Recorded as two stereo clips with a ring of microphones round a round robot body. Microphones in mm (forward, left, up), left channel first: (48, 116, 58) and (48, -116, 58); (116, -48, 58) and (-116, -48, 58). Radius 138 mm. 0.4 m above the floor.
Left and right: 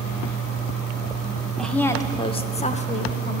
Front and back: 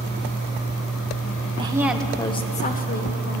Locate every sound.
1.6 s a woman speaking: 175° left, 0.8 m; by 3.4 s 35° left, 1.5 m